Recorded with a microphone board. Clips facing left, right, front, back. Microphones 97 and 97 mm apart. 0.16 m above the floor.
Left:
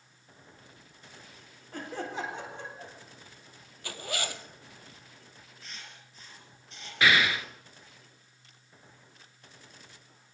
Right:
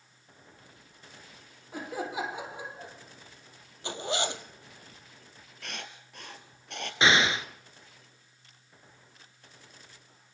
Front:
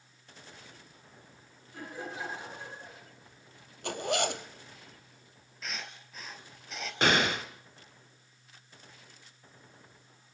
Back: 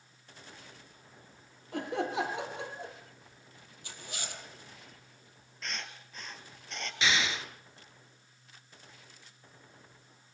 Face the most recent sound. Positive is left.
turn(degrees=-25)